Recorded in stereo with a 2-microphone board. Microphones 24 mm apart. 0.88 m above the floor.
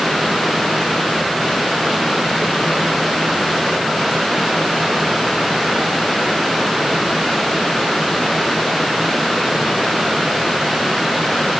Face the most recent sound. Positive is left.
No sound to turn to.